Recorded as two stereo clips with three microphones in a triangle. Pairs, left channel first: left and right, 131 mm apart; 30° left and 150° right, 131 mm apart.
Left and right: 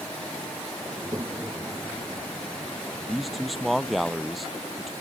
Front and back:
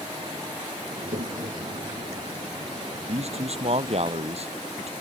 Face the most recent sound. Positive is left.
turn(degrees=180)